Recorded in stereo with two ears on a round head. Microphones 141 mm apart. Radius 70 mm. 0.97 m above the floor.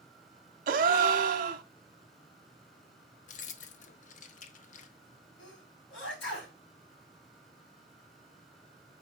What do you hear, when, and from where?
0.7 s a gasp: 55° right (ahead or behind), 1.0 m
3.3 s keys jangling: 50° left (ahead or behind), 0.6 m
5.4 s a sneeze: 85° left, 4.5 m